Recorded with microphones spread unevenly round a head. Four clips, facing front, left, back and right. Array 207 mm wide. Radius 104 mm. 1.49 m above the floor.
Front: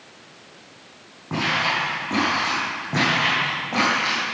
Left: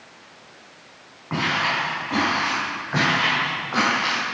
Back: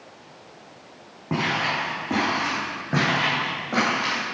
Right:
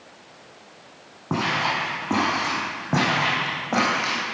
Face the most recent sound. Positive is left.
turn(degrees=-100)